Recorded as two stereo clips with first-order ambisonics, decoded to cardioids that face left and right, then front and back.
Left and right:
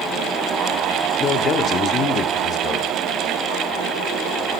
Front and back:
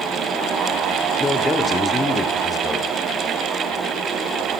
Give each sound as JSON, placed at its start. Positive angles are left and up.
{"t": 1.2, "sound": "a man speaking", "azimuth_deg": 65, "distance_m": 0.9}